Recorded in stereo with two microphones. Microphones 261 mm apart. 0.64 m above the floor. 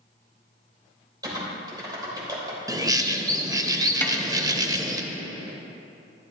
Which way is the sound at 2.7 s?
15° right (ahead or behind).